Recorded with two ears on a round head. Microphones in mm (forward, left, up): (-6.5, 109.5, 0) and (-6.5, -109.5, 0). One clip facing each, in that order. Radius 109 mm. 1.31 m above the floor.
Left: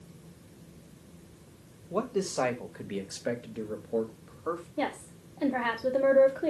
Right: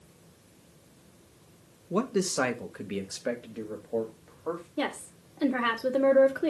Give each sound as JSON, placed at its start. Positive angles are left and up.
{"t": 1.9, "sound": "a man speaking", "side_deg": -35, "distance_m": 1.5}
{"t": 4.8, "sound": "a woman speaking", "side_deg": -20, "distance_m": 2.0}